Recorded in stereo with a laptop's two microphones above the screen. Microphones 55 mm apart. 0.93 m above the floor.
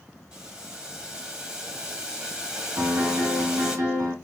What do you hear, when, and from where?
0.3 s boiling: 15° right (ahead or behind), 1.6 m
2.8 s a piano: 70° right (ahead or behind), 1.8 m